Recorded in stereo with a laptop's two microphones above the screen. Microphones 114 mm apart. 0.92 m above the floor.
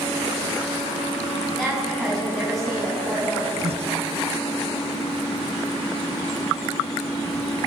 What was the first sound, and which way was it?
A woman speaking, centre (ahead or behind).